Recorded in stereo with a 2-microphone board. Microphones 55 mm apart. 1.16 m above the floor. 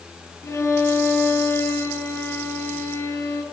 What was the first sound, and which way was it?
A violin, 75° left (ahead or behind).